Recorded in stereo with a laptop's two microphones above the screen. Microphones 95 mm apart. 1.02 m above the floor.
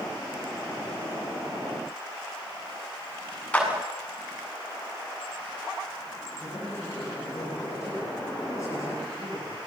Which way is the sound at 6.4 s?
35° left (ahead or behind).